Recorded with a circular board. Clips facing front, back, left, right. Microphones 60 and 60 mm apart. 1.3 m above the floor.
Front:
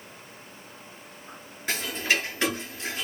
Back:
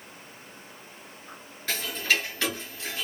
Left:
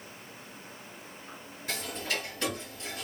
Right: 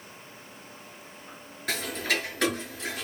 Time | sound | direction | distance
1.7 | ticking | 70° right | 6 m